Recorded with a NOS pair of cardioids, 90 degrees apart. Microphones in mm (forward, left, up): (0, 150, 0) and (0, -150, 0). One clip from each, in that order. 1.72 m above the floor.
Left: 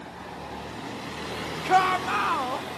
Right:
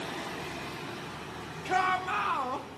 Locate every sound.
1.6 s a shout: 40° left, 1.9 m; by 2.7 s 25° left, 2 m